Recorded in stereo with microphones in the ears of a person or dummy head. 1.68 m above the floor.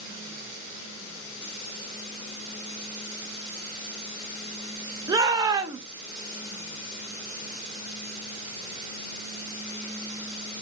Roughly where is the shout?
Centre.